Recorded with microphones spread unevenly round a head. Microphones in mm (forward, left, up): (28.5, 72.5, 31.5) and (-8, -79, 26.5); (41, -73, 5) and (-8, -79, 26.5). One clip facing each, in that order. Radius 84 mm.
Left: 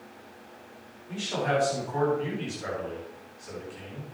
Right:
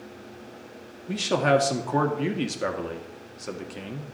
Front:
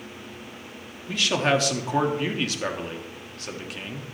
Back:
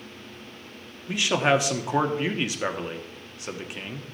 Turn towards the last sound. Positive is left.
turn(degrees=-100)